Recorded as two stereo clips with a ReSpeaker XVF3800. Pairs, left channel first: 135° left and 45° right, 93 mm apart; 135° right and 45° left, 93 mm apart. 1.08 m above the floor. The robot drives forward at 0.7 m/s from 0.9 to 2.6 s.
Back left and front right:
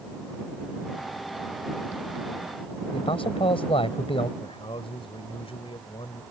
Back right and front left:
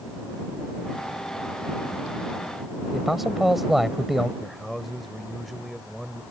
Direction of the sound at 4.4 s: 135° left.